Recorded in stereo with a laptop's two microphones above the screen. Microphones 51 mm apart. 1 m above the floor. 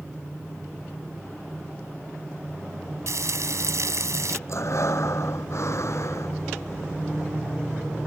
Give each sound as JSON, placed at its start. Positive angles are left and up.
{"t": 3.1, "sound": "frying", "side_deg": -75}
{"t": 4.5, "sound": "breathing", "side_deg": 65}